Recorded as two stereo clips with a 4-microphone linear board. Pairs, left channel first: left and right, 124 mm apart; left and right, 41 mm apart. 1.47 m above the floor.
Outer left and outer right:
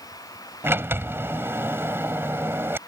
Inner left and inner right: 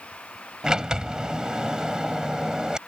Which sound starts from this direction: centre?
A sliding door, at 0.6 s.